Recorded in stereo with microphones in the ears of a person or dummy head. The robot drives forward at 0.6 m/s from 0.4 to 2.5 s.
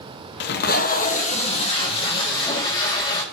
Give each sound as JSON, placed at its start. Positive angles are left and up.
{"t": 0.4, "sound": "tape being pulled", "side_deg": 55, "distance_m": 0.9}